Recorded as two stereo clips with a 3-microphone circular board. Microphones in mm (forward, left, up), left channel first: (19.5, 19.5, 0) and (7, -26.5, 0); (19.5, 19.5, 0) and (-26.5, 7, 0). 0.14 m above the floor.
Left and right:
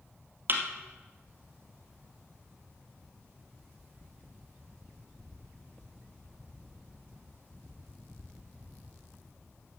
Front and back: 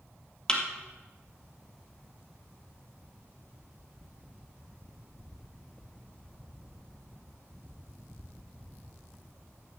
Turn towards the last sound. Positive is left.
turn(degrees=-60)